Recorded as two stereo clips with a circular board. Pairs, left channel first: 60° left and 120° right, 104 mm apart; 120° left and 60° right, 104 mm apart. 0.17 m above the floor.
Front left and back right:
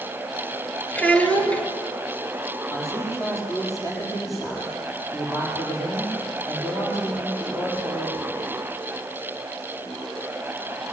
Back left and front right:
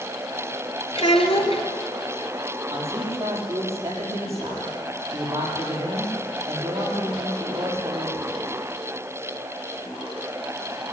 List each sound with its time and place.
0.9 s a child speaking: 135° left, 3 m
2.7 s a man speaking: straight ahead, 6.5 m